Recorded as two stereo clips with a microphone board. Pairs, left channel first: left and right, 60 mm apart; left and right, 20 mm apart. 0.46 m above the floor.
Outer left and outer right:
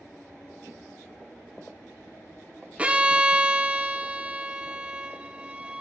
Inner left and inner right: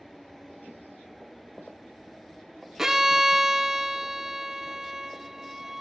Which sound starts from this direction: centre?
A violin, at 2.8 s.